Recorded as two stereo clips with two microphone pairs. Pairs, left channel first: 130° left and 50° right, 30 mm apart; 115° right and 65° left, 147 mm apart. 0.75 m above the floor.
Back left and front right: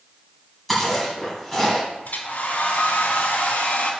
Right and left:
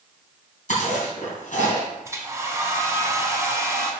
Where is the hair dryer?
135° left, 1.3 m.